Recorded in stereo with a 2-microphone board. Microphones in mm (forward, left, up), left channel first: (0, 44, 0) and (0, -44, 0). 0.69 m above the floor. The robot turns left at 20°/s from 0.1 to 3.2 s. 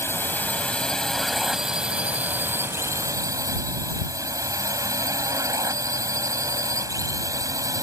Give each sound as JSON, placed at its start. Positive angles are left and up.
{"t": 0.0, "sound": "a drone", "azimuth_deg": 25}